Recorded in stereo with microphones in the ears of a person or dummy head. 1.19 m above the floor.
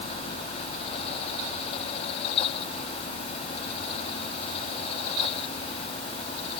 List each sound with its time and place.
Only background noise.